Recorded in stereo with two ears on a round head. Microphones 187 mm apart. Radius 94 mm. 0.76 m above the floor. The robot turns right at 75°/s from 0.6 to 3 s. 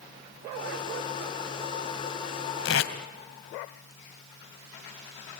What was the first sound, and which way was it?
Tape being pulled, 55° left (ahead or behind).